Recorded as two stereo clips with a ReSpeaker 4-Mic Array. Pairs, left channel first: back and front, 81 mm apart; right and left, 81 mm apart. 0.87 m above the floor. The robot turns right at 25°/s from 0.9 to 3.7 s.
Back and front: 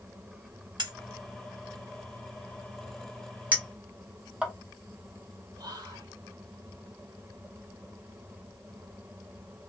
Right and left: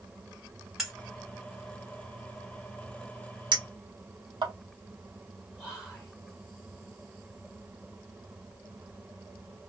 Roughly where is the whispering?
Ahead.